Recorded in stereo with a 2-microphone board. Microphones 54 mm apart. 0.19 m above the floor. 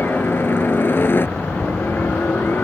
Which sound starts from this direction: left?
A helicopter, at 0.0 s.